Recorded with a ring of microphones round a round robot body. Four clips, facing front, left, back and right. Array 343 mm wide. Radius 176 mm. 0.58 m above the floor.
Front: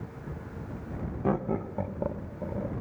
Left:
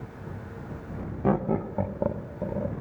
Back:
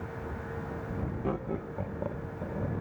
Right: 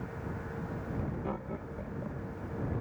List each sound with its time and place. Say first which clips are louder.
1.2 s laughter: left 12 dB, front 7 dB; 70° left; by 2.7 s 80° left